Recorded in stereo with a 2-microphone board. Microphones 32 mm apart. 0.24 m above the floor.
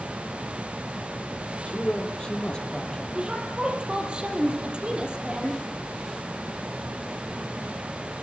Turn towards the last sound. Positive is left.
turn(degrees=-30)  # may be behind; listen again after turning